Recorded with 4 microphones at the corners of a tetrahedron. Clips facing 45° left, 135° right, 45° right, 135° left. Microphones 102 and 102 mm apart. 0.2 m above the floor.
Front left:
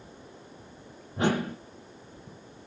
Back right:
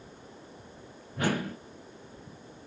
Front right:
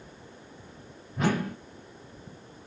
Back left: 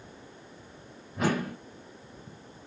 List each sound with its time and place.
1.2 s a whoosh: 55° left, 0.7 m